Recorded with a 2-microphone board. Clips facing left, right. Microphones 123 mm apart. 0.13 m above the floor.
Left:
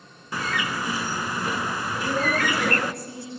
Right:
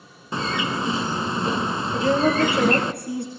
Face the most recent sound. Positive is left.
turn(degrees=-65)  # may be behind; listen again after turning